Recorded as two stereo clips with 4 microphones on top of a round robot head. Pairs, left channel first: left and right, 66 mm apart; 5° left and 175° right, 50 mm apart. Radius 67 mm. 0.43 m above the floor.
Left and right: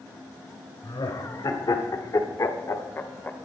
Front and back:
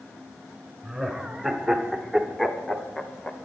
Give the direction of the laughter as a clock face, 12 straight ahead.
9 o'clock.